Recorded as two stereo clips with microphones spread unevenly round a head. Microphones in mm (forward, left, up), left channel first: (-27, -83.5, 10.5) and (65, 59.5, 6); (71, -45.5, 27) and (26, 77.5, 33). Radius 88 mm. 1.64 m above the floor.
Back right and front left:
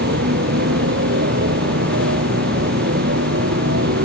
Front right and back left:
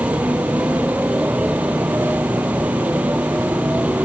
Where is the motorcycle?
30° left.